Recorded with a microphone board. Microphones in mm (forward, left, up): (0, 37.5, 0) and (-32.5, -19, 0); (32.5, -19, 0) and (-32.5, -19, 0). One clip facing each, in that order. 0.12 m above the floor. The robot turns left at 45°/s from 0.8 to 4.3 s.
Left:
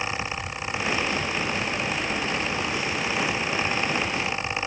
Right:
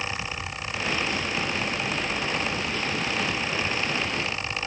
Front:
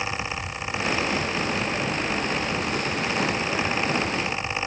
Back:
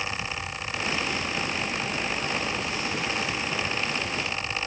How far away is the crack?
I don't hear a crack.